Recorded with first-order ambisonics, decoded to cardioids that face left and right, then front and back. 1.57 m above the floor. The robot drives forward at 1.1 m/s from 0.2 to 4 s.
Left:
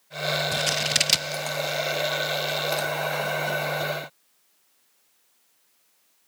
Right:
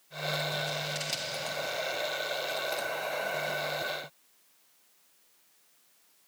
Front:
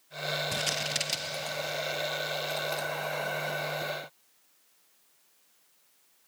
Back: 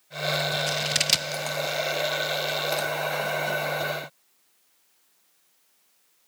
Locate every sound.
0.5 s scissors: 60° left, 0.6 m; by 1.4 s 145° left, 0.9 m